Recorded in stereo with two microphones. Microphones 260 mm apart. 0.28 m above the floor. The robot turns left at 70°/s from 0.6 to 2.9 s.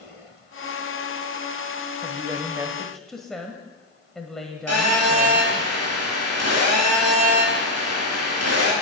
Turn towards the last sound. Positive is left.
turn(degrees=-75)  # may be behind; listen again after turning